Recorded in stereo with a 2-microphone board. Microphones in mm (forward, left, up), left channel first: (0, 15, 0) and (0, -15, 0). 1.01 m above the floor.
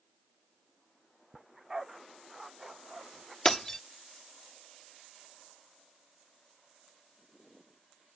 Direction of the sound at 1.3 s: 10° right (ahead or behind).